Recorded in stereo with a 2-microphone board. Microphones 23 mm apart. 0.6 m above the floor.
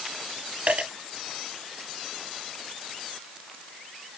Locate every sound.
0.7 s a dropped coin: 70° right (ahead or behind), 3.5 m